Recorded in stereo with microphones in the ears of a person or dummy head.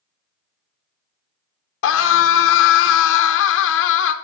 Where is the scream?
80° left, 0.9 m.